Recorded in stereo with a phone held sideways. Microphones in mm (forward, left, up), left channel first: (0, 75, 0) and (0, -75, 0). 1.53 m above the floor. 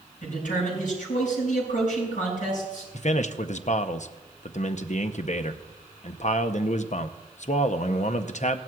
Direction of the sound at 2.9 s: 55° left (ahead or behind).